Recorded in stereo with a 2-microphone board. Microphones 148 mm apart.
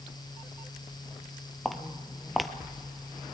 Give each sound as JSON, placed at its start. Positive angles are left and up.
{"t": 1.6, "sound": "footsteps", "side_deg": 0, "distance_m": 0.9}